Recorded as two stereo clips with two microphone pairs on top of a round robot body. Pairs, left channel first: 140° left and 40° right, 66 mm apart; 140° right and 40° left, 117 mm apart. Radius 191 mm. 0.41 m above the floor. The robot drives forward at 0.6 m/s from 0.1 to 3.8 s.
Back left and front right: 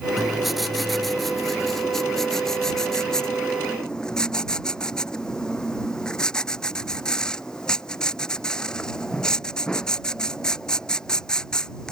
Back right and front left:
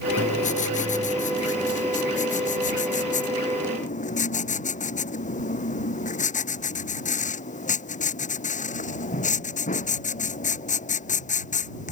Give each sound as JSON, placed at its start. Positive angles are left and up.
{"t": 0.2, "sound": "writing", "azimuth_deg": -130}